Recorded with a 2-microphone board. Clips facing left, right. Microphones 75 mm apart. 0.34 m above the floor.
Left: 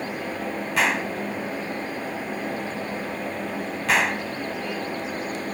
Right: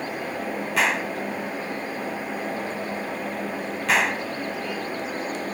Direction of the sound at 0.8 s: Centre (ahead or behind).